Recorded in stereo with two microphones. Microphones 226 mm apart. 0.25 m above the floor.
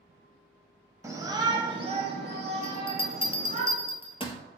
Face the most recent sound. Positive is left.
turn(degrees=25)  # may be behind; listen again after turning